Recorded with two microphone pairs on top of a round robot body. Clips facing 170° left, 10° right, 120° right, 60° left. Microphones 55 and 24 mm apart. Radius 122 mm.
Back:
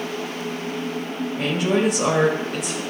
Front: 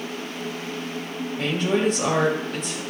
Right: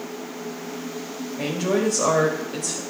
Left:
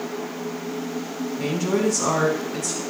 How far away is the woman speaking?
About 3.5 m.